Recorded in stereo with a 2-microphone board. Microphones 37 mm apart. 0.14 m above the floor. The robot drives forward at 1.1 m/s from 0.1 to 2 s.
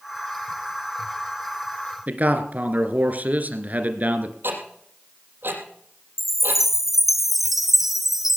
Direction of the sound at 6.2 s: 5° right (ahead or behind).